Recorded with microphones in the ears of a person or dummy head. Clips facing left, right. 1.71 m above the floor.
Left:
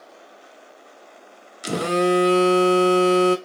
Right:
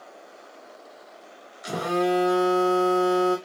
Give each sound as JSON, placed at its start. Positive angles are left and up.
{"t": 1.6, "sound": "a phone buzzing", "side_deg": 40, "distance_m": 0.6}